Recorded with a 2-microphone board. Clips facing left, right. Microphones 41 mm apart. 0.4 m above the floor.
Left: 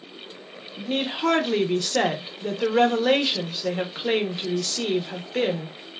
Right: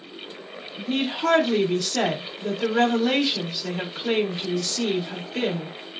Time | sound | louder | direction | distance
0.8 | a woman speaking | even | 20° left (ahead or behind) | 0.8 m